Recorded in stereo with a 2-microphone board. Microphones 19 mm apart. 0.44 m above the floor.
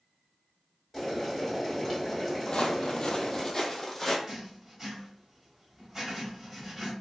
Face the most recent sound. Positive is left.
turn(degrees=-20)  # may be behind; listen again after turning